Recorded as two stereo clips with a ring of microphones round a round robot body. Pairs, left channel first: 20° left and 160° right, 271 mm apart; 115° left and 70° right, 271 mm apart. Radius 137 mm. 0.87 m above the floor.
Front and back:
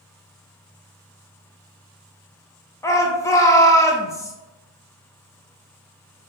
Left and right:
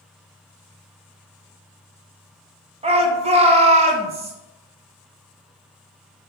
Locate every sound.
2.8 s a shout: 40° right, 0.6 m